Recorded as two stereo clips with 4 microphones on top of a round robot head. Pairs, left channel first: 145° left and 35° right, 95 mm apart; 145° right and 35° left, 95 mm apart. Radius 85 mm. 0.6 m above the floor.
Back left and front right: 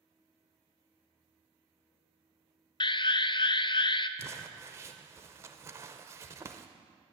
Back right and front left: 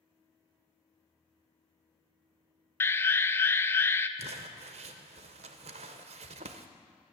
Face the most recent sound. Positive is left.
turn(degrees=30)